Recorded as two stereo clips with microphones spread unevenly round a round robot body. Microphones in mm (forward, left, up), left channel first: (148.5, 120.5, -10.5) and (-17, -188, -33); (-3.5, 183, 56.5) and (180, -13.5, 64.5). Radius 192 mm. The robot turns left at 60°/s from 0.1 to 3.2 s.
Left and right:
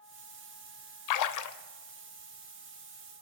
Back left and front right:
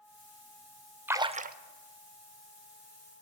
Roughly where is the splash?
Ahead left.